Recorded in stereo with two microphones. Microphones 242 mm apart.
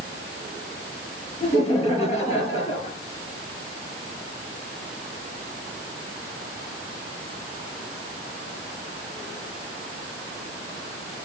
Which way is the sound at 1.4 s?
25° left (ahead or behind).